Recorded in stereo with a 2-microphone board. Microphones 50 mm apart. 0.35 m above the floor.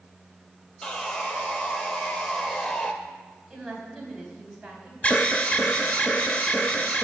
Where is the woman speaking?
5° right (ahead or behind), 2.5 m.